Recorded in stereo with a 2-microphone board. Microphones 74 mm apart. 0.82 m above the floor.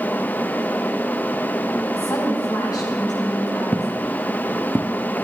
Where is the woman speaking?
60° left (ahead or behind), 5.5 m.